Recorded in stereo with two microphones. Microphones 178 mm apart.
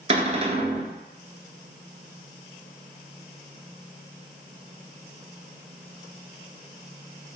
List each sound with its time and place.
0.1 s a cupboard door: 40° right (ahead or behind), 0.7 m